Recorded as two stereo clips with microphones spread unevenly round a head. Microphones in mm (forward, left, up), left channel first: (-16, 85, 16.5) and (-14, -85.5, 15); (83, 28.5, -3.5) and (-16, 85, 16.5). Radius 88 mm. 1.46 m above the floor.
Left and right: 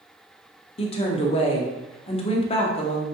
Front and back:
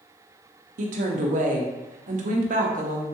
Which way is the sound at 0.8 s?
150° left.